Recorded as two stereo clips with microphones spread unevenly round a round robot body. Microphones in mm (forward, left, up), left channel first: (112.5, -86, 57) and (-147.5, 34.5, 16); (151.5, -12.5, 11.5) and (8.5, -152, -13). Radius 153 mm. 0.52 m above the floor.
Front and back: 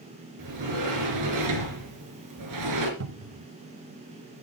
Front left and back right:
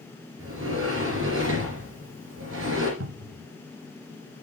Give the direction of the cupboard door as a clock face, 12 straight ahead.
5 o'clock.